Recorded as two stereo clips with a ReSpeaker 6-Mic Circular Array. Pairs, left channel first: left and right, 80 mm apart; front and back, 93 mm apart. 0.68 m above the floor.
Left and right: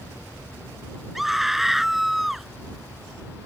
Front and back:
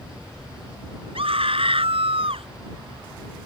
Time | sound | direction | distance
1.1 | a scream | straight behind | ?